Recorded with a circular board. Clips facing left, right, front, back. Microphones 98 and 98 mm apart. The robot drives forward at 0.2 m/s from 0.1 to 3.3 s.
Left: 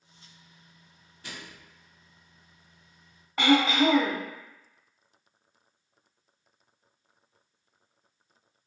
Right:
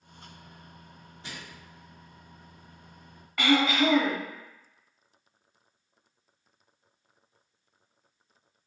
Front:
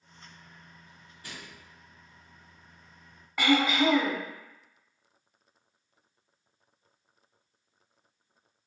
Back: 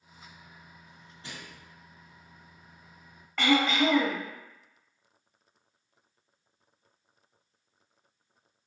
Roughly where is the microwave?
Behind right.